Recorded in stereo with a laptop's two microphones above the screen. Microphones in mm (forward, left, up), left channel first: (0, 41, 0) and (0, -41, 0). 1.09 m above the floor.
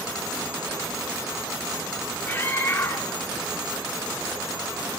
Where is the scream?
25° left (ahead or behind), 2.5 m.